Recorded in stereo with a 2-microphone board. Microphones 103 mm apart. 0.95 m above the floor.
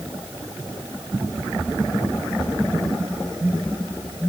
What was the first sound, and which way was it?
Only background noise.